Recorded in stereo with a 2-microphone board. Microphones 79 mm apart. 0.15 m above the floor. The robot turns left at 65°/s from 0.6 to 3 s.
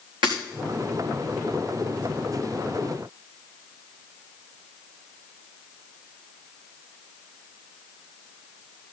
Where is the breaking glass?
80° right, 4 m.